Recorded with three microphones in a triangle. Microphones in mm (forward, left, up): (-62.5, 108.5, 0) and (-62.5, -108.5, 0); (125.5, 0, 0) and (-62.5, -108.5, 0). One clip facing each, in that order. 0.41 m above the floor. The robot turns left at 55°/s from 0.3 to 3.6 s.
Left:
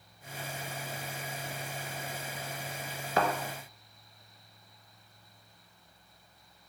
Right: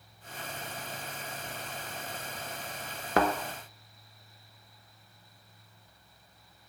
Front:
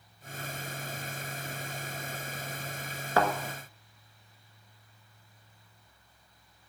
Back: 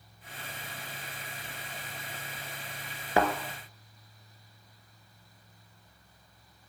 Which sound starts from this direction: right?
A thud, at 3.2 s.